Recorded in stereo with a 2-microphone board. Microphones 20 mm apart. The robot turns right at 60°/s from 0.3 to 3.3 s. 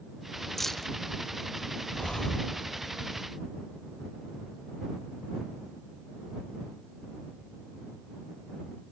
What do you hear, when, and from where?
0.6 s keys jangling: 10° left (ahead or behind); by 0.9 s 15° left (ahead or behind)
1.9 s breathing: 120° left; by 2.6 s 160° left